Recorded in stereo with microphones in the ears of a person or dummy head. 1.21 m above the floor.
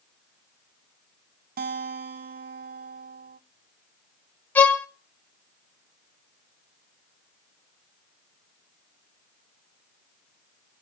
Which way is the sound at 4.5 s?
5° left (ahead or behind).